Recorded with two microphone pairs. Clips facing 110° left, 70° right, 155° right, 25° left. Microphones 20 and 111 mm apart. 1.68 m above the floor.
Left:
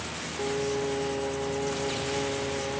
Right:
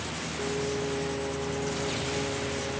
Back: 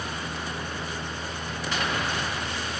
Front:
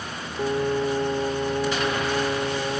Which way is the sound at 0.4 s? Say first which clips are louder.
Left 2 dB, front 11 dB; 45° left.